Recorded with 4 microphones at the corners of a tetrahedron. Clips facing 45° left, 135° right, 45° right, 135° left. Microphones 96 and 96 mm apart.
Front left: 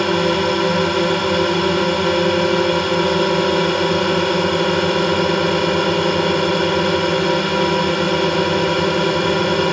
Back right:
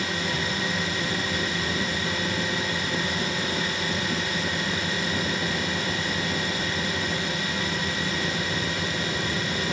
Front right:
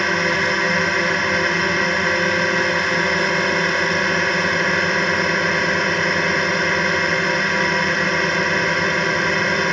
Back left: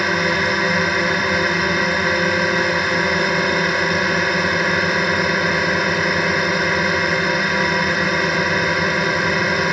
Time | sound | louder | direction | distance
0.0 | a drone | front left 13 dB, back left 1 dB | 50° left | ?